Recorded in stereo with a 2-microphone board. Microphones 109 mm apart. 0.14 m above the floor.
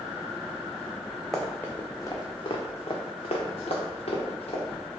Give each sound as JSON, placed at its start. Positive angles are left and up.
{"t": 1.3, "sound": "running footsteps", "side_deg": 0, "distance_m": 0.8}